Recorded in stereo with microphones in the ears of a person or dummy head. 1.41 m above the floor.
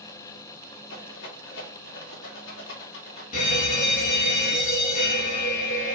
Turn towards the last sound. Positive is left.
turn(degrees=45)  # may be behind; listen again after turning